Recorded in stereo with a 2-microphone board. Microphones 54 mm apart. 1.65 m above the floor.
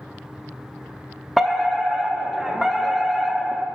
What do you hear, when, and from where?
1.4 s a fire alarm: 5° right (ahead or behind), 0.7 m